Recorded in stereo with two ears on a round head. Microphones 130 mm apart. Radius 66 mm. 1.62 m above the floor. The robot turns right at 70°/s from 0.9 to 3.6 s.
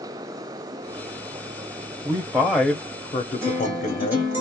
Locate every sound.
2.0 s a man speaking: 30° right, 0.7 m; by 4.3 s 80° left, 0.7 m
3.4 s a guitar: 20° right (ahead or behind), 1.4 m; by 4.4 s 15° right (ahead or behind), 1.4 m